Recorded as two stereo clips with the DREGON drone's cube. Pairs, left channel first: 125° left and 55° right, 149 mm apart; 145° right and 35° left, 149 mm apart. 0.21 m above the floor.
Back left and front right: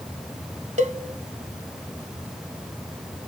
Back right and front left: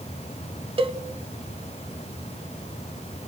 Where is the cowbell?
20° right, 0.5 m.